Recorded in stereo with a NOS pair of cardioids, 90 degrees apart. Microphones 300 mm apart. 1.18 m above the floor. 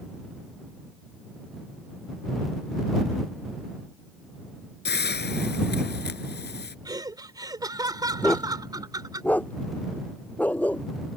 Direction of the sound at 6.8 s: 10° right.